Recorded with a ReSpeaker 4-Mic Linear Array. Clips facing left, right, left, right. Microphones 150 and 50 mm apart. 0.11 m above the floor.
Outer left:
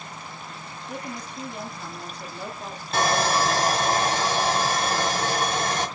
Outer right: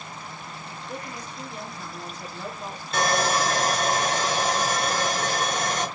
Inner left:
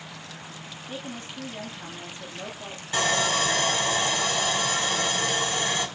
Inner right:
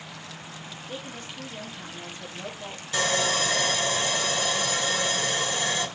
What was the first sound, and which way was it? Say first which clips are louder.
A woman speaking: outer left 3 dB, inner left 2 dB; 15° left (ahead or behind).